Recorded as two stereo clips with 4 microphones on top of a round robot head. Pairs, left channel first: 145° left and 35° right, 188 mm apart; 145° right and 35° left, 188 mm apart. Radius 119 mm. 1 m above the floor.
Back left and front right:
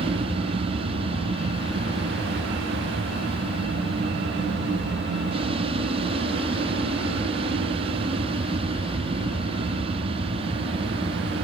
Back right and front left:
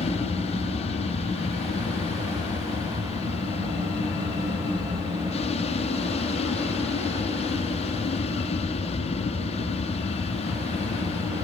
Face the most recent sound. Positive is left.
turn(degrees=-90)